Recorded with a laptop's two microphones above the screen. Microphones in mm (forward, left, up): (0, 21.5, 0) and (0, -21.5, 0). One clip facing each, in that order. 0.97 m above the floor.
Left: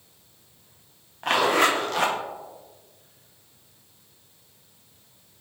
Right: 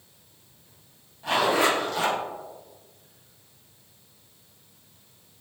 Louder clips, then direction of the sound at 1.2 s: Left 2 dB; 60° left (ahead or behind).